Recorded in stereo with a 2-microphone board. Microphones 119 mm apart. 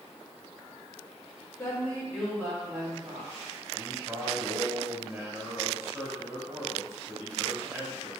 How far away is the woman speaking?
About 1.5 m.